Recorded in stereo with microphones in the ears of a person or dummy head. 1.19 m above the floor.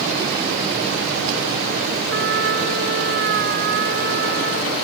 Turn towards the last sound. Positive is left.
turn(degrees=-70)  # may be behind; listen again after turning